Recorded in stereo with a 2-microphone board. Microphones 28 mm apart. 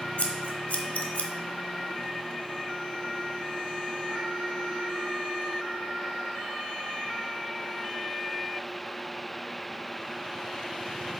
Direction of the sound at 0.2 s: 55° left (ahead or behind).